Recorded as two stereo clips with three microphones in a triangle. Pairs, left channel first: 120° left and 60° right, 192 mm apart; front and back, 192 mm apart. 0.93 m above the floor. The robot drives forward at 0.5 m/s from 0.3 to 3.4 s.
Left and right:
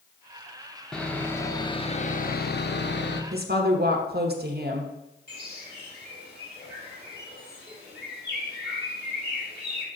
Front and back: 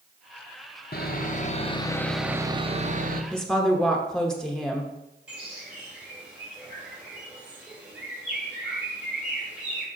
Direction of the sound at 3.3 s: 85° right.